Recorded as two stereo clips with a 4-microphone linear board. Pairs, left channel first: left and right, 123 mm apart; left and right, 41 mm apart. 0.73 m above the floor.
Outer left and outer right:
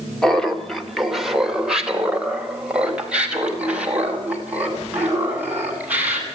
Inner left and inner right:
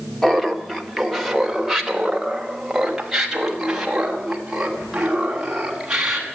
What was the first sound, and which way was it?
Laughter, 5° left (ahead or behind).